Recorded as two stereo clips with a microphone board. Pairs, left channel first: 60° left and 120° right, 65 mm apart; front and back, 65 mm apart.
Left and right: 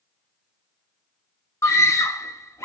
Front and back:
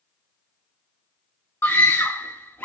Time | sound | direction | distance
1.6 | a scream | 55° left | 1.7 m